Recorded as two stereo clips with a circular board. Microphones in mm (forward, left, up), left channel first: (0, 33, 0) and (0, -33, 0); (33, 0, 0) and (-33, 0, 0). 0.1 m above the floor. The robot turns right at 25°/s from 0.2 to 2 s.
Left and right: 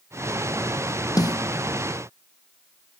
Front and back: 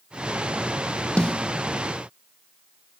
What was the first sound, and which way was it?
A snare drum, 75° left.